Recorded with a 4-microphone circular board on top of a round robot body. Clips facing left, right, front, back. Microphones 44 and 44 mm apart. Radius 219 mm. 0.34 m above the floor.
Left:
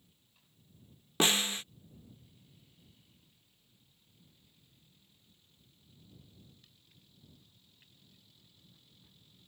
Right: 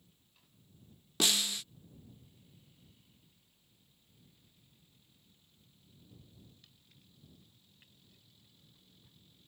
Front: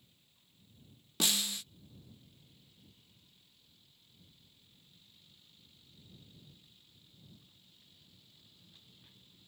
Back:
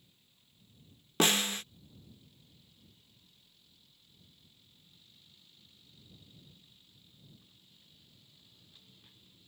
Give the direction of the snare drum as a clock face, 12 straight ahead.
7 o'clock.